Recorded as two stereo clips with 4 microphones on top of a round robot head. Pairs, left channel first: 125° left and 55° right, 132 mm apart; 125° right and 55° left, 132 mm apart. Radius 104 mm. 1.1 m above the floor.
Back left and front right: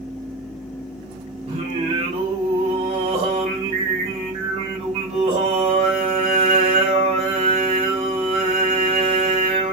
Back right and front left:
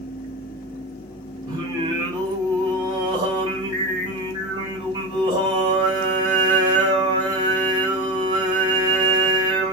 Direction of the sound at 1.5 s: 10° right.